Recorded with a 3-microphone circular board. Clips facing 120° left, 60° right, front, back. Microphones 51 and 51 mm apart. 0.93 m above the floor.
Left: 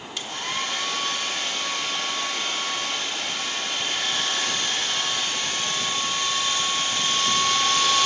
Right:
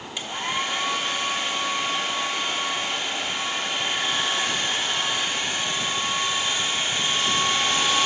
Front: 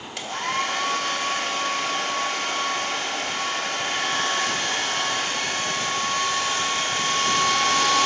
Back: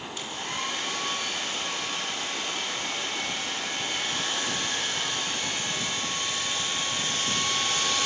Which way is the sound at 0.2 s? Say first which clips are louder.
Right 2 dB, front 9 dB; 15° left.